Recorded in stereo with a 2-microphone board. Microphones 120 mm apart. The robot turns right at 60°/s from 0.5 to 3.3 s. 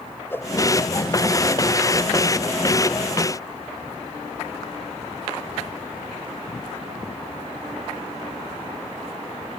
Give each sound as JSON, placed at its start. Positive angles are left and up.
{"t": 0.3, "sound": "a whoosh", "side_deg": 15}